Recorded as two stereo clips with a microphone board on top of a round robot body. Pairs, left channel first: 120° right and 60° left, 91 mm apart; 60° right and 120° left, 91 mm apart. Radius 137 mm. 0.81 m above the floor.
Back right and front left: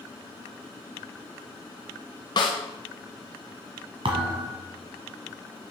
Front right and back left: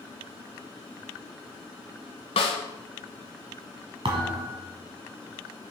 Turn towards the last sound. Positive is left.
turn(degrees=85)